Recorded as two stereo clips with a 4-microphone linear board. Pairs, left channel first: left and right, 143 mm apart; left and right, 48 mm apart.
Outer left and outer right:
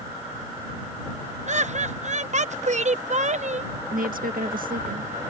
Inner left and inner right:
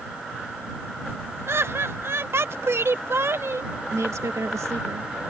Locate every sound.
1.5 s laughter: 55° right (ahead or behind)
3.9 s a woman speaking: 80° right